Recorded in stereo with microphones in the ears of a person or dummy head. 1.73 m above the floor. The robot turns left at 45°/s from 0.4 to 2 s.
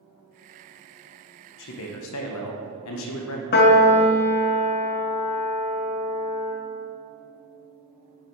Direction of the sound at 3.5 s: 50° left (ahead or behind).